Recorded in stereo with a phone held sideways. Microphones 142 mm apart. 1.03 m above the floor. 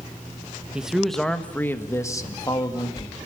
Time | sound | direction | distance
0.7 | a man speaking | 5° right (ahead or behind) | 1.3 m